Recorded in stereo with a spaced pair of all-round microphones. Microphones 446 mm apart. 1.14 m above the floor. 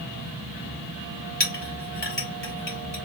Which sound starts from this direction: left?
A clink, at 1.4 s.